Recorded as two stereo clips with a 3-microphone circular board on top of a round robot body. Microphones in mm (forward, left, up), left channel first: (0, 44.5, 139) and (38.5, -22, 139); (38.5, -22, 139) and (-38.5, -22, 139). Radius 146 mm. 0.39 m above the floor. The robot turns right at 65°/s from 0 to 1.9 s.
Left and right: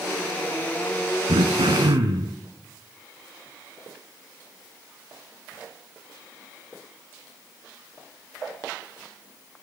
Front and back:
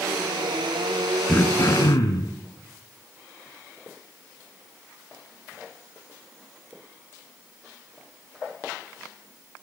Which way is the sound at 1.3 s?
75° right.